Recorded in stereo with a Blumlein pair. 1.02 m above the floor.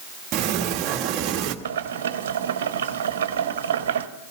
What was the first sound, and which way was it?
A sliding door, 40° right.